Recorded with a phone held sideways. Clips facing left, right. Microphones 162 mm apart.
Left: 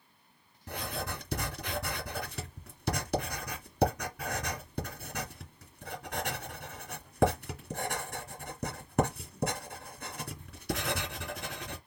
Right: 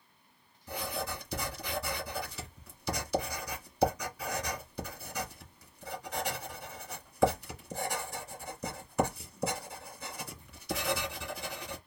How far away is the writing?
About 2.0 m.